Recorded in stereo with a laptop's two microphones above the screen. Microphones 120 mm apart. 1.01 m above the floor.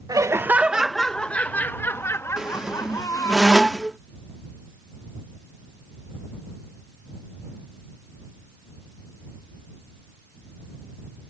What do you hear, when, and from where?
0.1 s laughter: 30° right (ahead or behind); by 3.4 s 30° left (ahead or behind)
2.4 s a squeak: 5° right (ahead or behind)